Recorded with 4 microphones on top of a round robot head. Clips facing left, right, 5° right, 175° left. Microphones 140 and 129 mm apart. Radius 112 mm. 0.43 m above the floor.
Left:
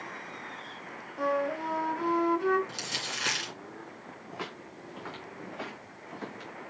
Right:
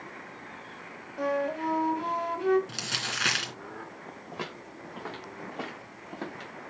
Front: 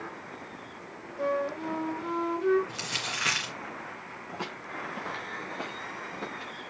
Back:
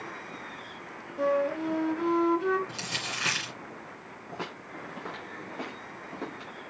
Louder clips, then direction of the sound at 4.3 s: Right 1 dB, front 1 dB; 130° right.